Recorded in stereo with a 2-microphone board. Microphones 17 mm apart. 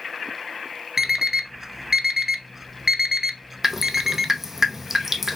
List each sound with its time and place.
1.0 s an alarm clock: 20° right (ahead or behind), 0.6 m
3.6 s dripping: 20° right (ahead or behind), 1.0 m